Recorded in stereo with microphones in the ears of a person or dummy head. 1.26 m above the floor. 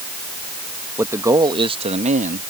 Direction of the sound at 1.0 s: 15° right (ahead or behind).